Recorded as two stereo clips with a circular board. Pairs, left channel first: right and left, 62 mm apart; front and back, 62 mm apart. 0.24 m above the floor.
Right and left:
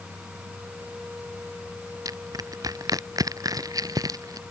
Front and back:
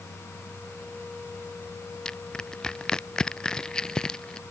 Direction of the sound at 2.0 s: 80° left.